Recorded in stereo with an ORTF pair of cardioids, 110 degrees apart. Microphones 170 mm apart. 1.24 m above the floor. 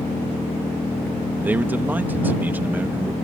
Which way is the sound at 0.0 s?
15° left.